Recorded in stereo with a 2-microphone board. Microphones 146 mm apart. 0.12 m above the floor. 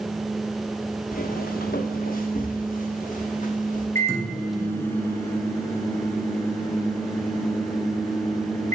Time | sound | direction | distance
1.1 | footsteps | 75° left (ahead or behind) | 1.1 m
4.0 | a microwave | 20° left (ahead or behind) | 1.6 m